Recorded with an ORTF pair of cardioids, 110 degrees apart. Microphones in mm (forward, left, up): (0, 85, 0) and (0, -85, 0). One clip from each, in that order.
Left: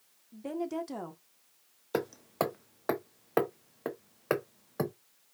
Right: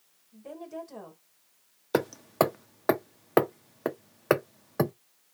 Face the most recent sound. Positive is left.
turn(degrees=-30)